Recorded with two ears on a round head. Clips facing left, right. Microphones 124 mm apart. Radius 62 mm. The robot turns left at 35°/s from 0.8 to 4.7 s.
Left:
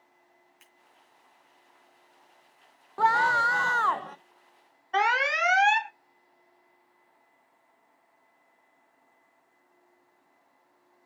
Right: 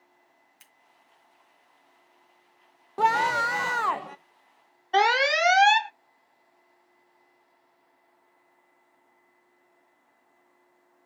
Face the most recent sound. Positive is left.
turn(degrees=-40)  # may be behind; listen again after turning